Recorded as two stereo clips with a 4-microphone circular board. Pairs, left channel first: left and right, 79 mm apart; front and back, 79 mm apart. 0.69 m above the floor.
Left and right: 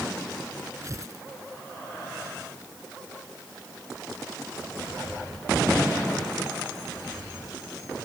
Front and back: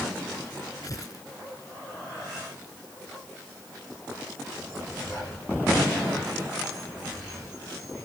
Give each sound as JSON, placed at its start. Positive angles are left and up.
{"t": 0.8, "sound": "tearing paper", "azimuth_deg": -40}